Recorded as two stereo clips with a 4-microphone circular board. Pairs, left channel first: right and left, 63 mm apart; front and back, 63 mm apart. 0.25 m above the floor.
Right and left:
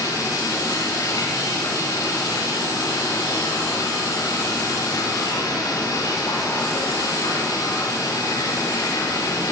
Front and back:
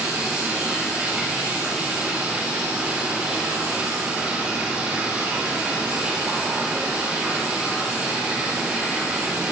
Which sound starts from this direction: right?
Running water, at 0.0 s.